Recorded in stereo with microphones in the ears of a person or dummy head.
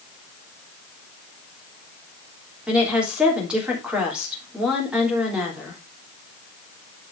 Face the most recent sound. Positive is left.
turn(degrees=-5)  # may be behind; listen again after turning